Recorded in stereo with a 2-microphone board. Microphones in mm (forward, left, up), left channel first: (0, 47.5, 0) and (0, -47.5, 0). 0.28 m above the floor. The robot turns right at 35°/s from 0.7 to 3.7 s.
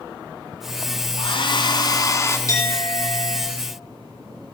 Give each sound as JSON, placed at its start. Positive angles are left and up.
{"t": 1.2, "sound": "a hair dryer", "azimuth_deg": 110, "distance_m": 1.7}
{"t": 2.5, "sound": "a clink", "azimuth_deg": 145, "distance_m": 9.0}